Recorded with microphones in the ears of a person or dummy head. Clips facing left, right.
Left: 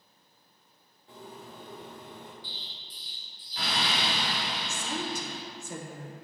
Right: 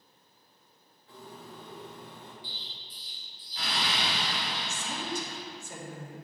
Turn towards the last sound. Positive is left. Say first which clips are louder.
# left 3 dB
turn(degrees=80)